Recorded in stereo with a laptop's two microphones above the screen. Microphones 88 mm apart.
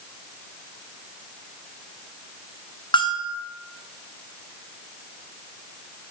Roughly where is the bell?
Left.